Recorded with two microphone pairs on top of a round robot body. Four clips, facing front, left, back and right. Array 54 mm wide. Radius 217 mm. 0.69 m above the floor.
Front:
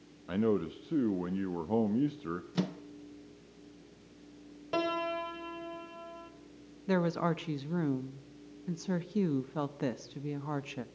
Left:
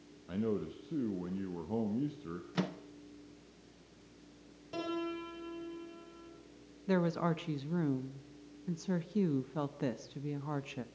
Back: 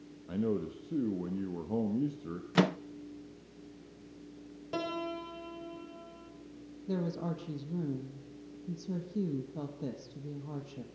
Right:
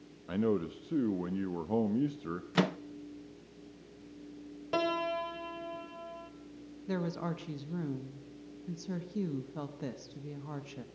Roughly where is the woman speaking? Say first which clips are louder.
Left 4 dB, front 5 dB; ahead.